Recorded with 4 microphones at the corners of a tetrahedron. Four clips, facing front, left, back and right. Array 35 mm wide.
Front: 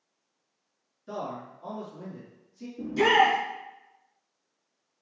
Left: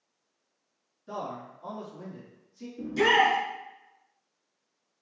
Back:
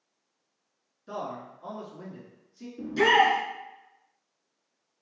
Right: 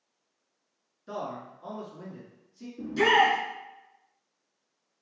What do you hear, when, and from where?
1.1 s a man speaking: 95° right, 1.2 m; by 2.7 s straight behind, 1.3 m
2.8 s a shout: 160° right, 1.2 m